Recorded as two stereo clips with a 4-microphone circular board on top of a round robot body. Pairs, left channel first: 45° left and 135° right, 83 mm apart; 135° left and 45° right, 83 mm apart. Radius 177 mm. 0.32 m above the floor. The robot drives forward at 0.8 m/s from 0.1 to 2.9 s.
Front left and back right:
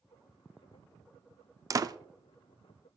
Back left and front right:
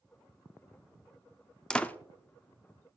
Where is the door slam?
145° right, 0.6 m; by 1.9 s 160° right, 0.7 m.